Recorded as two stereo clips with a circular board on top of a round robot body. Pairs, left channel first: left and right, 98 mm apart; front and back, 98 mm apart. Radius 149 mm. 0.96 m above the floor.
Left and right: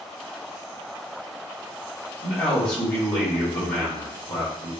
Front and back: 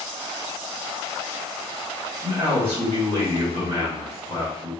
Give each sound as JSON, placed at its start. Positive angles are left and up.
{"t": 2.2, "sound": "a man speaking", "azimuth_deg": 165, "distance_m": 1.7}